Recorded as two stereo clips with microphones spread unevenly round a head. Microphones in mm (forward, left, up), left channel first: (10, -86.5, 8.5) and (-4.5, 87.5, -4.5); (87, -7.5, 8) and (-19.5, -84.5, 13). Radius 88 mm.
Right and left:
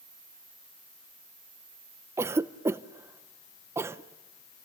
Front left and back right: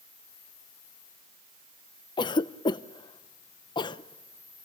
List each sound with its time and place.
2.2 s a cough: 35° left, 0.7 m